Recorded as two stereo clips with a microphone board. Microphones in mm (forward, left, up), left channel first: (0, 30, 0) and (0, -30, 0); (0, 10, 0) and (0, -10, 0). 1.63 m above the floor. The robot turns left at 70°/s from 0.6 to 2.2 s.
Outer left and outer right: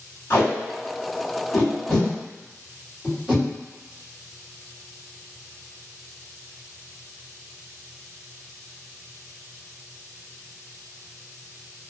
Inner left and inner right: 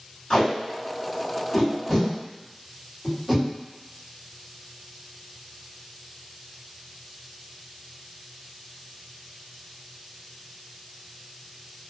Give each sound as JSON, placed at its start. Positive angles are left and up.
{"t": 0.3, "sound": "tape being pulled", "side_deg": 55, "distance_m": 1.8}